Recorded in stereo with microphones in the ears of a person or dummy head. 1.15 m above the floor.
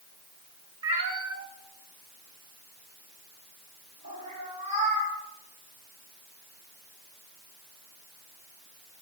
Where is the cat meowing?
30° right (ahead or behind), 1.6 m; by 5.1 s 45° right (ahead or behind), 3.5 m.